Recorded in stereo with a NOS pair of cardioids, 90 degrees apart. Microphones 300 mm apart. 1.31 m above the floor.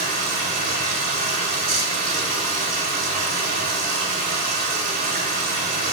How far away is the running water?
About 3 m.